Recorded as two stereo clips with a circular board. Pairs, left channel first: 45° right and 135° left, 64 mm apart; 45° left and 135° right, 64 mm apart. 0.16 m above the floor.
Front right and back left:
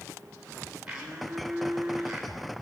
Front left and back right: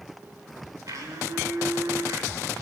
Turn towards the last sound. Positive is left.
turn(degrees=-145)